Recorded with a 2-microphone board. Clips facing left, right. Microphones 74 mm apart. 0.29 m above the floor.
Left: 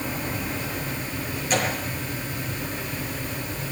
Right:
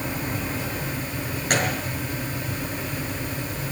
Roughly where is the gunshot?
Right.